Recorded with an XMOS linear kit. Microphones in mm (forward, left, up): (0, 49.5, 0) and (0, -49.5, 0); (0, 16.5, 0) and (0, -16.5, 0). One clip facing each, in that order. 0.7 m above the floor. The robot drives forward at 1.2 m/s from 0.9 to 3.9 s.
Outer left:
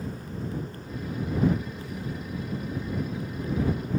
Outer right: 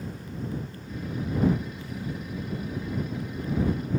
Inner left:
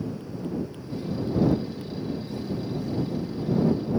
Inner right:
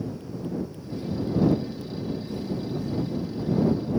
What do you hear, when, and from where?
Only background noise.